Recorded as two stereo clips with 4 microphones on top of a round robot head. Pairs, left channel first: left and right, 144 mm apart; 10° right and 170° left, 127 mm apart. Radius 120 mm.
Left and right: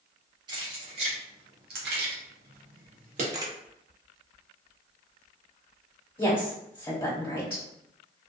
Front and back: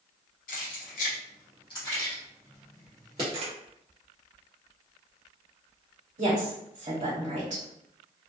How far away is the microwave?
I don't hear a microwave.